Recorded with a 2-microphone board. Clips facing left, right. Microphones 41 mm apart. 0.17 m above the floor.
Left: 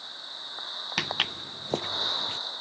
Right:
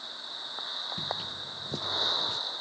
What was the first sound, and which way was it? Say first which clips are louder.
Footsteps: left 6 dB; 75° left (ahead or behind).